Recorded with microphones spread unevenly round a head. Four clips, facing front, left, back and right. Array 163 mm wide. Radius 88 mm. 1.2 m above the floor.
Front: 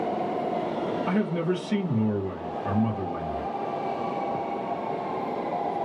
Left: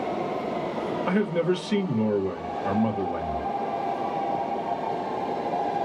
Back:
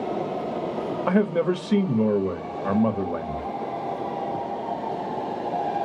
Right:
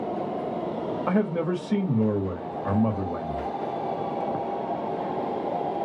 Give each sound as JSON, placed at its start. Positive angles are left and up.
{"t": 1.1, "sound": "a man speaking", "azimuth_deg": -170, "distance_m": 1.0}